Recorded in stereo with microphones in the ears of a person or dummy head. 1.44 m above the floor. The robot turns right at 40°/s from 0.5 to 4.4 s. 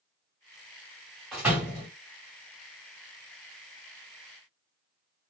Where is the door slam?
Centre (ahead or behind), 1.8 m; by 1.9 s 20° right (ahead or behind), 1.8 m.